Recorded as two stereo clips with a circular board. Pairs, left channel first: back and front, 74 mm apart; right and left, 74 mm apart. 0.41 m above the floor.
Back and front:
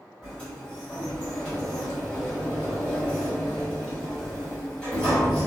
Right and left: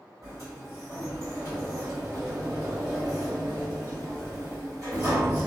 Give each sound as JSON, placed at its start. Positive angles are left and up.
{"t": 0.2, "sound": "a sliding door", "azimuth_deg": 115, "distance_m": 1.9}